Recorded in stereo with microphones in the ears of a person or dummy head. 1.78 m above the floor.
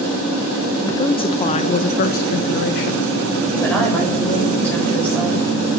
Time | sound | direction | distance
0.8 | a woman speaking | 15° left (ahead or behind) | 1.5 m
3.5 | a woman speaking | 10° left (ahead or behind) | 8 m